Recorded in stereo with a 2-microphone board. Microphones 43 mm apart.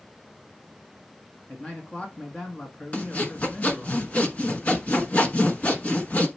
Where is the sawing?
35° left (ahead or behind), 1.1 m.